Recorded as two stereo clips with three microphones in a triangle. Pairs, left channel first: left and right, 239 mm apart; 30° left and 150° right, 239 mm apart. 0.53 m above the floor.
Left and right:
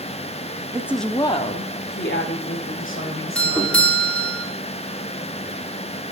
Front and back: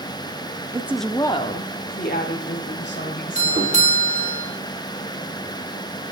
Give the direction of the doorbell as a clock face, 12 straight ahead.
6 o'clock.